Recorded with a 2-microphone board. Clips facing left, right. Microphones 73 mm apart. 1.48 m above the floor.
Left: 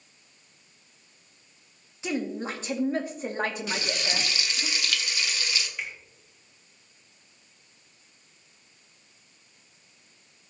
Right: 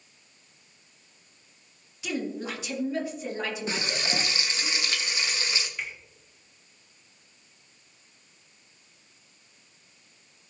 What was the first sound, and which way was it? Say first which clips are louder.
A woman speaking: left 2 dB; 30° left (ahead or behind).